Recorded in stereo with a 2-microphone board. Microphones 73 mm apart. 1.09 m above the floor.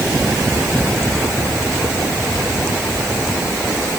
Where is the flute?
I don't hear a flute.